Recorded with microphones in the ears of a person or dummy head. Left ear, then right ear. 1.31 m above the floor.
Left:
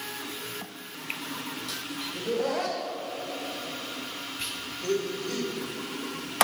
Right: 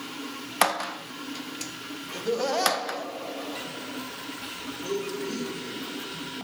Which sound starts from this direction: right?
Laughter, at 2.1 s.